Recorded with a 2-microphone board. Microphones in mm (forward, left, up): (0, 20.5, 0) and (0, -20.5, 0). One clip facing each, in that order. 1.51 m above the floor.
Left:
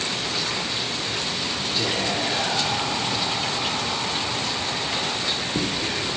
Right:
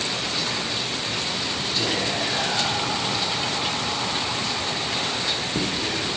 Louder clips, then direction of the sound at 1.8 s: Even; 5° left (ahead or behind).